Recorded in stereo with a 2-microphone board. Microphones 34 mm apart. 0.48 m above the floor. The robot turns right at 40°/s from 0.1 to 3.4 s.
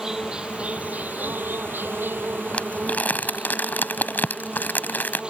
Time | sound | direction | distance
0.0 | an insect | 160° right | ?
2.5 | crumpling | 40° left (ahead or behind) | ?